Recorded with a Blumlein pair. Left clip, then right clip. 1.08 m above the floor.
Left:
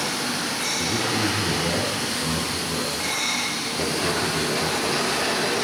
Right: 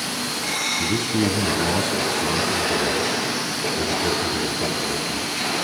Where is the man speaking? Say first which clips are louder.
Right 1 dB; 70° right, 7.5 m.